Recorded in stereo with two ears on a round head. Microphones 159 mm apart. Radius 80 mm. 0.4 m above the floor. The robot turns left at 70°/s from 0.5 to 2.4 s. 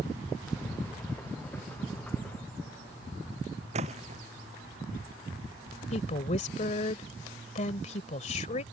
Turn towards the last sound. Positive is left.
turn(degrees=40)  # may be behind; listen again after turning